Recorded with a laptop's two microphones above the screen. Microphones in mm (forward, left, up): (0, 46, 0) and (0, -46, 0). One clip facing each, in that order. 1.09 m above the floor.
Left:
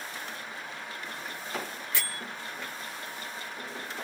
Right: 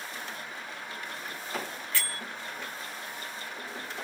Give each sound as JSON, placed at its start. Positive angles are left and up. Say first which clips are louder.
{"t": 1.9, "sound": "a bell", "louder": "right 1 dB", "side_deg": 20, "distance_m": 1.0}